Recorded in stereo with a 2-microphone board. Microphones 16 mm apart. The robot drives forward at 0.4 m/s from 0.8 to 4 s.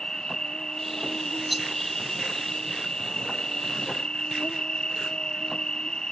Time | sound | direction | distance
0.0 | an insect | 55° left (ahead or behind) | ?
1.5 | a rattle | 5° right (ahead or behind) | ?